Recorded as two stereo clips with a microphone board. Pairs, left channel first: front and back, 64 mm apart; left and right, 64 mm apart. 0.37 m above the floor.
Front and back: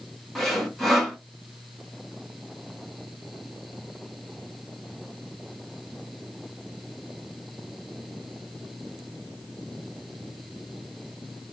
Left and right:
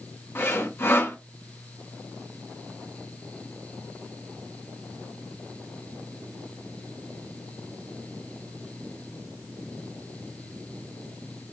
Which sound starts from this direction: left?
Sawing, at 0.3 s.